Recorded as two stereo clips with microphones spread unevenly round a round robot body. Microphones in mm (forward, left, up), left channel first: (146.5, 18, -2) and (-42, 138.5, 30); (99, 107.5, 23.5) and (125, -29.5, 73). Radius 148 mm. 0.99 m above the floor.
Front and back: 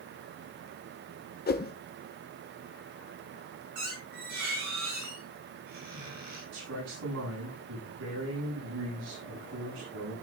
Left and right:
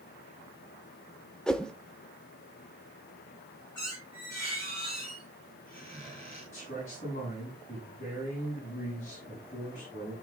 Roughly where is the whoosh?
Ahead.